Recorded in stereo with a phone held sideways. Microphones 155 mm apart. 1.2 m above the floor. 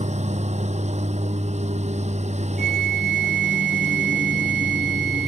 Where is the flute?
80° left.